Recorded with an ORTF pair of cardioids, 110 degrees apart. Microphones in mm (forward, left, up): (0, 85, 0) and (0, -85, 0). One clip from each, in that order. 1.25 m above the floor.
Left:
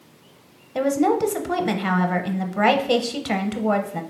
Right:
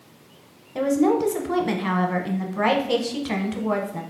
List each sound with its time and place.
0.8 s a woman speaking: 20° left, 0.7 m